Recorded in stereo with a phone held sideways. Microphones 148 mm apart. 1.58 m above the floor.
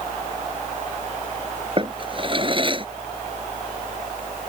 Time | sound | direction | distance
0.0 | a fan | 55° right (ahead or behind) | ?
1.8 | a drawer | 35° right (ahead or behind) | ?